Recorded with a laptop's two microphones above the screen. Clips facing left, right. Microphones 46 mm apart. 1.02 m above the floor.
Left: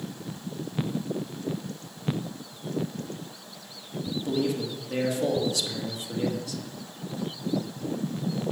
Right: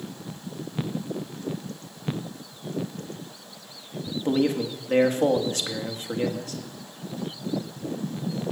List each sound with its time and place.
4.2 s a man speaking: 40° right (ahead or behind), 1.4 m